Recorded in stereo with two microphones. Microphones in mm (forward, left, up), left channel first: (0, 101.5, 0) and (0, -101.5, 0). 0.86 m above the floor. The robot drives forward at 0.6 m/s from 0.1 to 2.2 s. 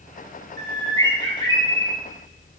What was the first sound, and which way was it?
A bird, 15° left (ahead or behind).